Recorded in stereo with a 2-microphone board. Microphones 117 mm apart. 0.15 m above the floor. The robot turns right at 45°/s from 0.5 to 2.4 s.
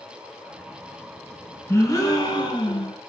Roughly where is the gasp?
Ahead left.